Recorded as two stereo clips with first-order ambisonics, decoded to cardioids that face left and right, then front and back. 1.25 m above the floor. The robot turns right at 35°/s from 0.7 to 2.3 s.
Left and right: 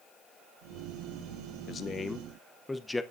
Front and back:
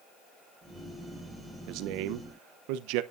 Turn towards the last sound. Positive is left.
turn(degrees=170)